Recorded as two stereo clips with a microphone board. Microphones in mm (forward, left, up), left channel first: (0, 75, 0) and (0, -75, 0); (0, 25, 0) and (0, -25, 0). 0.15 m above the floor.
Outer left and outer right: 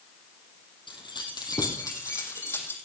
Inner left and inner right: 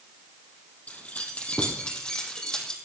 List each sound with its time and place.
0.9 s keys jangling: 35° left (ahead or behind), 3.5 m; by 2.8 s 15° left (ahead or behind), 4.5 m